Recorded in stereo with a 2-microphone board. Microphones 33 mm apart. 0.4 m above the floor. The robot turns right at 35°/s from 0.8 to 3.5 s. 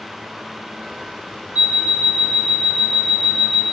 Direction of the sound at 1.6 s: 115° right.